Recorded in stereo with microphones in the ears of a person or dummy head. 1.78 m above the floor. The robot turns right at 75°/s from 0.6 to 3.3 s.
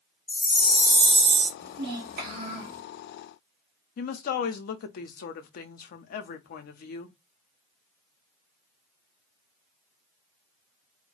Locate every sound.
0.3 s a chime: 175° left, 0.8 m; by 1.5 s 120° right, 0.8 m
1.6 s a child speaking: 115° right, 1.6 m; by 2.8 s 25° right, 1.6 m
4.0 s a woman speaking: 50° left (ahead or behind), 0.6 m